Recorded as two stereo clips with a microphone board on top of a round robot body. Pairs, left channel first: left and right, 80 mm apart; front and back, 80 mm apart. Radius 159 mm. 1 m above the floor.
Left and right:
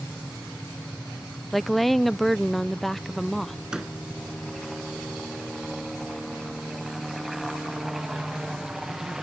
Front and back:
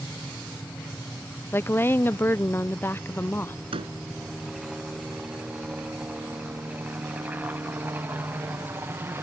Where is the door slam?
175° right.